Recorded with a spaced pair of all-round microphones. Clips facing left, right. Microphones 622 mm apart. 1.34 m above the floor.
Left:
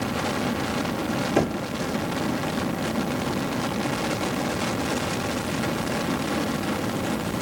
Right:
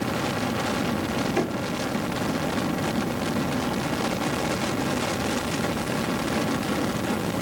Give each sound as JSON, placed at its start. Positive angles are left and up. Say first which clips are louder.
{"t": 1.4, "sound": "knocking", "louder": "left 5 dB", "side_deg": 70, "distance_m": 2.0}